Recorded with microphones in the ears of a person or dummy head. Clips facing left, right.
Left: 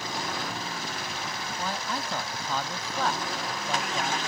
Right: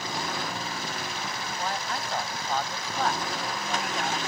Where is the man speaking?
80° left; by 4.2 s 65° left (ahead or behind).